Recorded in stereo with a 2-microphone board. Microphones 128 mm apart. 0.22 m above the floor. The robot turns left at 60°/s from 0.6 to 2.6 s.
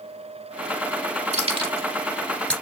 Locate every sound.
1.3 s keys jangling: 55° right (ahead or behind), 2 m; by 2.5 s 10° left (ahead or behind), 2 m